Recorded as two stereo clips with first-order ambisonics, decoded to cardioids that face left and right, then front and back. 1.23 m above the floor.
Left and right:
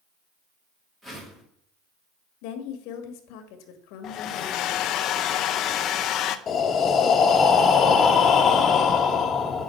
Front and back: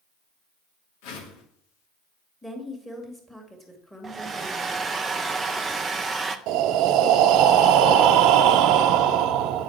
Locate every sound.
1.0 s a whoosh: 10° right, 2.5 m
2.4 s a woman speaking: 90° left, 1.8 m
4.0 s a hair dryer: 110° left, 0.6 m
6.5 s breathing: 150° left, 0.9 m